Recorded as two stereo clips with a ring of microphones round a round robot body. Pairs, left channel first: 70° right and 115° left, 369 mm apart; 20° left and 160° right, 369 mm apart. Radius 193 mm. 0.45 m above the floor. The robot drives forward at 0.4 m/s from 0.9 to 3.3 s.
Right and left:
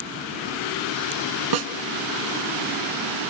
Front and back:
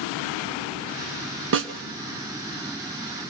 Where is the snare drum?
145° left, 1.6 m.